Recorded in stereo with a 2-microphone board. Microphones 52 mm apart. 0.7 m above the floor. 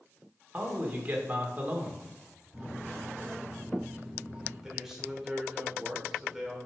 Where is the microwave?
30° right (ahead or behind), 4.5 m.